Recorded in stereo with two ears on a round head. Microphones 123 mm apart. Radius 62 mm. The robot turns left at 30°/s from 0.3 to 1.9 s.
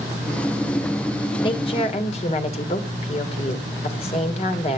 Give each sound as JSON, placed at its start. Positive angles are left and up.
{"t": 1.4, "sound": "a woman speaking", "side_deg": 35, "distance_m": 2.0}